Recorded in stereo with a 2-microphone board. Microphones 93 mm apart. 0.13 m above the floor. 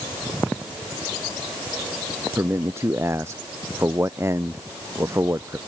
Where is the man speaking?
30° right (ahead or behind).